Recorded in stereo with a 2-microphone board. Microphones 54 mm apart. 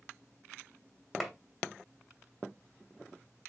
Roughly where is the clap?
Centre.